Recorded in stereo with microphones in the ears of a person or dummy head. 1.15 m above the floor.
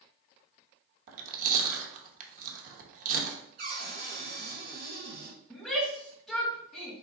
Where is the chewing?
50° right (ahead or behind), 0.9 m.